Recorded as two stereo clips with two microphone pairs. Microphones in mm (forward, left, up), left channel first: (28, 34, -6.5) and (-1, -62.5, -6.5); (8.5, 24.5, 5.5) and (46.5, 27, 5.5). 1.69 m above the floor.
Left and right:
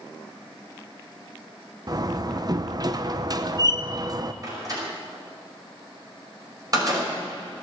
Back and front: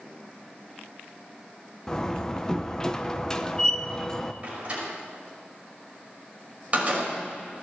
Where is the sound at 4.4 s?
55° right, 5.5 m.